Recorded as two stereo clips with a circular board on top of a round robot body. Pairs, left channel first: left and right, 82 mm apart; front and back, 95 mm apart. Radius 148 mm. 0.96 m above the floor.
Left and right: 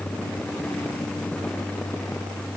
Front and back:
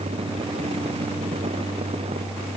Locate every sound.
Only background noise.